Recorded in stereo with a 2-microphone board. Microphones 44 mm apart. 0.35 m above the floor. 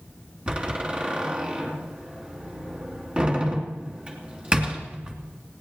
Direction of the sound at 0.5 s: 25° right (ahead or behind).